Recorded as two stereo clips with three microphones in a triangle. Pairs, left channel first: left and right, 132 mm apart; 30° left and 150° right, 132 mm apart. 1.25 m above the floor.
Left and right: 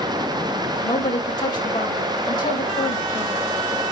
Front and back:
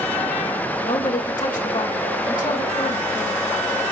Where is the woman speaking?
35° left, 5 m.